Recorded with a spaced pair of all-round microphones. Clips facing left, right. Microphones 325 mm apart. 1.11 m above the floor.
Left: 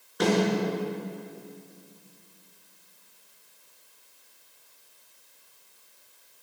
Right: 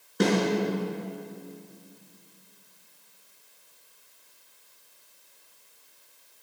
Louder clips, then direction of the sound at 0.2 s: Even; 30° right (ahead or behind).